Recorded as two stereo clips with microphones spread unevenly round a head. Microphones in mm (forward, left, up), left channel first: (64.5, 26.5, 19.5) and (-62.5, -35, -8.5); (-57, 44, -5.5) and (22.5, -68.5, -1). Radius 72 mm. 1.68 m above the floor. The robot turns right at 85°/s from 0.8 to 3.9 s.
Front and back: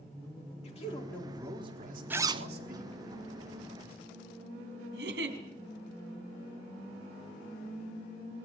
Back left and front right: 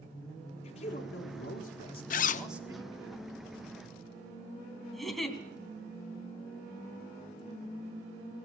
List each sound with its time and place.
0.6 s a man speaking: 75° left, 4.5 m; by 3.1 s 90° right, 4.5 m
2.1 s a zipper: 120° left, 0.8 m; by 2.5 s 155° left, 0.8 m
4.9 s a giggle: 145° right, 3.5 m